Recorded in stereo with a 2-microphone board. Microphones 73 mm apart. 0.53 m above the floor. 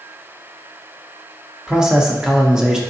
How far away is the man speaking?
About 0.7 m.